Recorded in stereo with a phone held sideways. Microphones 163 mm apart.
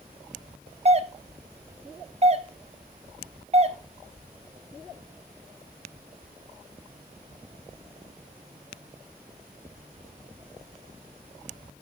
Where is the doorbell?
40° right (ahead or behind), 0.7 m.